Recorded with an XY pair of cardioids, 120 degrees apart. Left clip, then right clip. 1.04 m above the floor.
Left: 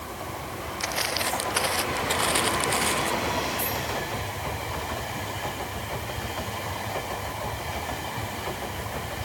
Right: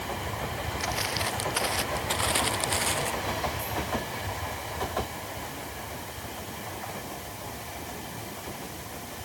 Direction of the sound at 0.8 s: 20° left.